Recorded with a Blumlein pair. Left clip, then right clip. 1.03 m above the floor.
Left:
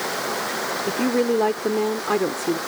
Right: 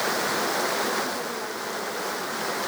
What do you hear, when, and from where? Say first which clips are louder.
0.9 s a woman speaking: left 6 dB; 50° left